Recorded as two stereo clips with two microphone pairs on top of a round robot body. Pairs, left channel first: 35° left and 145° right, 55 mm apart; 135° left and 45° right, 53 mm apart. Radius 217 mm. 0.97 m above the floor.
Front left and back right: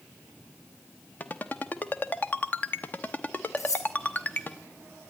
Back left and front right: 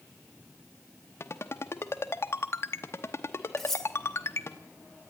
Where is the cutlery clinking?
50° left, 0.8 m.